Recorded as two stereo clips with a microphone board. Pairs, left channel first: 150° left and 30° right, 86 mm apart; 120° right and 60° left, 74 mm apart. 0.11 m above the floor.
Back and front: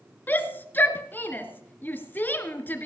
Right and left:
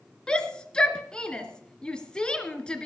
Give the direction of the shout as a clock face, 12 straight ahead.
6 o'clock.